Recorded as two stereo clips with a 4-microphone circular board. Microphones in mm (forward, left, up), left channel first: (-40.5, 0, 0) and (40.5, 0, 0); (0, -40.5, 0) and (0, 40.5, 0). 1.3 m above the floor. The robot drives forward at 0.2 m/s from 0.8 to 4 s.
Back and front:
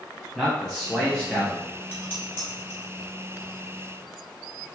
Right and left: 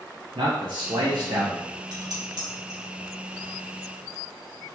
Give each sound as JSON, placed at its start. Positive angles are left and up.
{"t": 0.3, "sound": "a man speaking", "azimuth_deg": 95, "distance_m": 0.7}
{"t": 1.9, "sound": "dishes clattering", "azimuth_deg": 120, "distance_m": 1.3}